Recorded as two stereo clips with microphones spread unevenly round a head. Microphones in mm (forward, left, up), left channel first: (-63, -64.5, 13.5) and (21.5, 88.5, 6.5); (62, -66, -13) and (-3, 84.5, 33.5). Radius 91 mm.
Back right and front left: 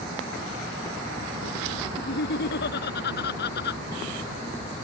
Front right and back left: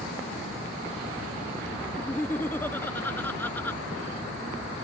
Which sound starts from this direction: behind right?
Laughter, at 2.0 s.